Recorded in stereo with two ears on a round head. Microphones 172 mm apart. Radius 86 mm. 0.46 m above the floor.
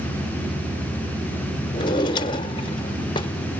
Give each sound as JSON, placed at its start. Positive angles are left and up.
{"t": 1.7, "sound": "a drawer", "side_deg": 25, "distance_m": 0.7}